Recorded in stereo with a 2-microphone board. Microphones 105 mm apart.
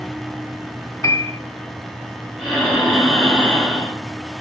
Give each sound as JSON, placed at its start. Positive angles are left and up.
{"t": 1.0, "sound": "a piano", "side_deg": 30, "distance_m": 0.6}
{"t": 2.4, "sound": "breathing", "side_deg": 5, "distance_m": 2.0}